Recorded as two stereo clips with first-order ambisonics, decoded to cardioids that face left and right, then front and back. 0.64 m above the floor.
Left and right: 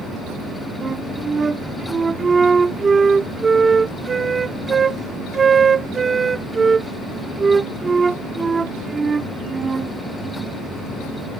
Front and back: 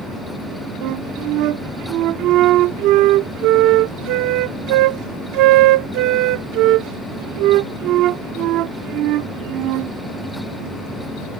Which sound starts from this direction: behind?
A flute, at 0.8 s.